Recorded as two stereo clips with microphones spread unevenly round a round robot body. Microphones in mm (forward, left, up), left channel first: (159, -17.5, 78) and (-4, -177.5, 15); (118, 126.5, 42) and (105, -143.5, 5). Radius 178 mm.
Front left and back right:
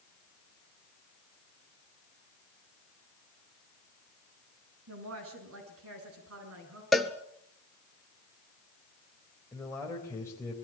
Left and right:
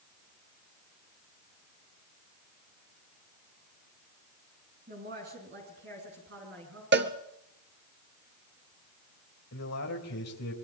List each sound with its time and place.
4.9 s a woman speaking: 160° right, 5 m; by 6.8 s 150° right, 7.5 m
6.9 s a cowbell: 40° right, 1.7 m
9.5 s a man speaking: 130° left, 3.5 m